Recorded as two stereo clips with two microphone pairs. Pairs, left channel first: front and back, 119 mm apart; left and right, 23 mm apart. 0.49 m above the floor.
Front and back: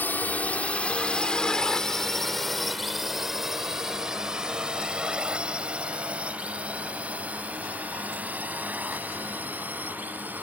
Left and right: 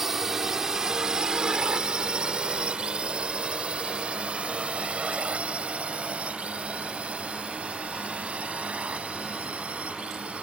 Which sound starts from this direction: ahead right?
A drone, at 0.0 s.